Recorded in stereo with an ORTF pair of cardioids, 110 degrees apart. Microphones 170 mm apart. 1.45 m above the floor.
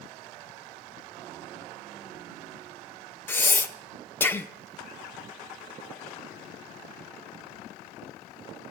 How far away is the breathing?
About 0.8 m.